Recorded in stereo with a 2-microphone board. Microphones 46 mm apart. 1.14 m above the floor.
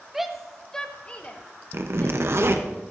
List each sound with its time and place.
0.1 s a shout: 10° right (ahead or behind), 0.9 m; by 2.7 s 50° left (ahead or behind), 1.8 m
1.7 s a zipper: 60° right (ahead or behind), 0.7 m